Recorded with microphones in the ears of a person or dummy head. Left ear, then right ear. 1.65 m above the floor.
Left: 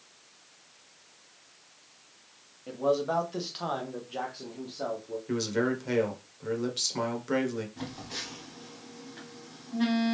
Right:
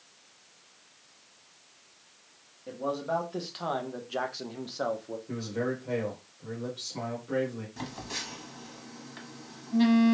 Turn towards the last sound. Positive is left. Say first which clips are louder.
# right 1 dB
turn(degrees=-80)